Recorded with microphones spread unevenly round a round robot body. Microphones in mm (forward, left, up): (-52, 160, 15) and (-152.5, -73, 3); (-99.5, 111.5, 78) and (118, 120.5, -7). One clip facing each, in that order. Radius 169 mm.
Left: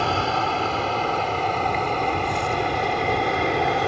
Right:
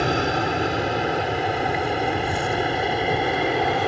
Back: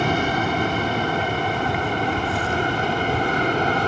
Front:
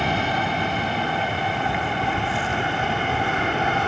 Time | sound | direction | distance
0.0 | an aircraft | 160° right | ?